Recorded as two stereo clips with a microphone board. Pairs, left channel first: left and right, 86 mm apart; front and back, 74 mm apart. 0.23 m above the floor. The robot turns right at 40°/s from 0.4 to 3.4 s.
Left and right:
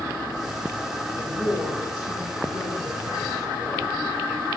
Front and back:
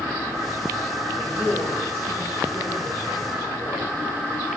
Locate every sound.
1.1 s a woman speaking: 100° left, 3.5 m; by 3.9 s 170° right, 3.5 m